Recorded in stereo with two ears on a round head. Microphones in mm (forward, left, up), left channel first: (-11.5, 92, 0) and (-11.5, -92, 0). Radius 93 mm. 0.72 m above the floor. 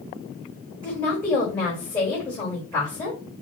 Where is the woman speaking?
20° left (ahead or behind), 3 m.